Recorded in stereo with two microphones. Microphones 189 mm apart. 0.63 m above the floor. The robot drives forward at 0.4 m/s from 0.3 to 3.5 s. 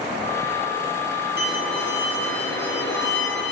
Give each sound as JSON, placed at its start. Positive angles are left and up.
{"t": 1.4, "sound": "a violin", "side_deg": 75, "distance_m": 7.0}